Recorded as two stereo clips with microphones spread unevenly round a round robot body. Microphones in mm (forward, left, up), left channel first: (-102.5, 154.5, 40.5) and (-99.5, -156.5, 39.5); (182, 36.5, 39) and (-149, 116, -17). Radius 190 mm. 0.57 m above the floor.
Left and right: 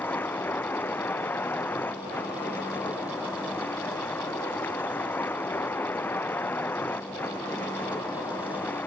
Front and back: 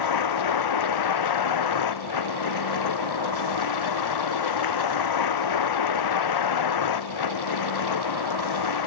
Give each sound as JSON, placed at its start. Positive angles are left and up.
{"t": 0.0, "sound": "a vehicle", "azimuth_deg": 5}